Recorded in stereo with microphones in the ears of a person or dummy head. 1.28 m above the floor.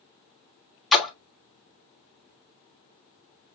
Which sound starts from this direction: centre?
A splash, at 0.9 s.